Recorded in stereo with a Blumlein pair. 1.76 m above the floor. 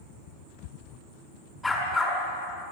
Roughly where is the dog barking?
Ahead.